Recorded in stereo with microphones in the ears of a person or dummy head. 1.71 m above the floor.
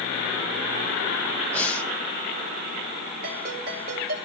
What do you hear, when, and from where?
1.5 s breathing: centre (ahead or behind), 0.6 m
3.2 s a ringtone: 40° right (ahead or behind), 2 m